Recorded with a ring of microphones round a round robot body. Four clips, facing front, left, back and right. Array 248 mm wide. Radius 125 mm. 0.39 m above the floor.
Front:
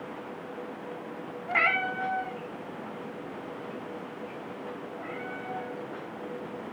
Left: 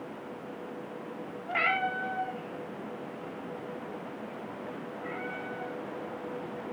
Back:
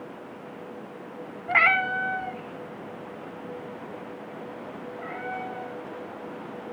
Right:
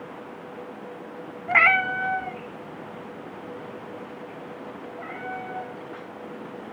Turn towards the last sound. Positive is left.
turn(degrees=-115)